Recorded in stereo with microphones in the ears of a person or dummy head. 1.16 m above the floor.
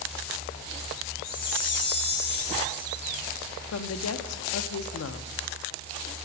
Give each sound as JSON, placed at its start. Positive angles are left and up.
{"t": 1.2, "sound": "a chime", "side_deg": 55, "distance_m": 2.0}
{"t": 3.7, "sound": "a woman speaking", "side_deg": 80, "distance_m": 0.5}